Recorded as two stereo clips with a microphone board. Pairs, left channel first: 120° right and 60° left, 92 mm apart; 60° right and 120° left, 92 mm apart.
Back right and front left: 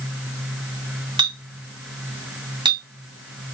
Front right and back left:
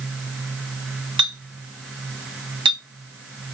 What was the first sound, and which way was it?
A clink, 90° left.